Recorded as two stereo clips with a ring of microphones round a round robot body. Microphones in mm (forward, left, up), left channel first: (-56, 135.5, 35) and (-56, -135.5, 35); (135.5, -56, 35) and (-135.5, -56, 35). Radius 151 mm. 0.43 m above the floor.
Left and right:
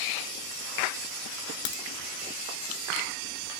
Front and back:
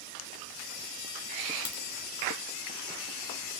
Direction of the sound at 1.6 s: 65° left.